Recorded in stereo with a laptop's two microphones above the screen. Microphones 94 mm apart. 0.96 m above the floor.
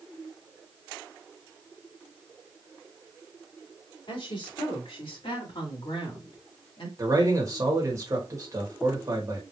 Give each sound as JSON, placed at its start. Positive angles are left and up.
{"t": 4.1, "sound": "a woman speaking", "side_deg": 65, "distance_m": 3.0}
{"t": 7.0, "sound": "a man speaking", "side_deg": -35, "distance_m": 1.3}